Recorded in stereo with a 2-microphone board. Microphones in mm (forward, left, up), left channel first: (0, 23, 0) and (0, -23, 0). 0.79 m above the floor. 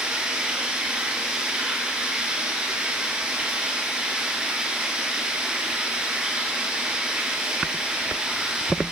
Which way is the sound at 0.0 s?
20° right (ahead or behind).